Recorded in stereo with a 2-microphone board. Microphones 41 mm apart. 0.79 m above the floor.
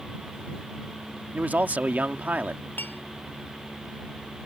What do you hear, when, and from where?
1.3 s a man speaking: 40° right (ahead or behind)
2.8 s dishes clattering: 50° left (ahead or behind)